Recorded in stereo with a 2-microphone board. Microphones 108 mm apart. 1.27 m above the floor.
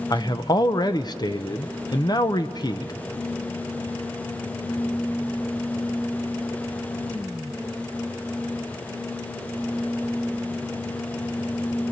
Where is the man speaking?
40° left (ahead or behind), 0.8 m.